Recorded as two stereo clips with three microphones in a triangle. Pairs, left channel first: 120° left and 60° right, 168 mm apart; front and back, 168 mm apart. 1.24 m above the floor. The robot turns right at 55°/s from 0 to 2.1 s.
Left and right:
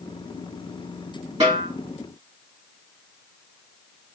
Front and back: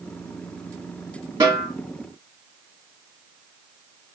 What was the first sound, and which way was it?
A snare drum, 115° right.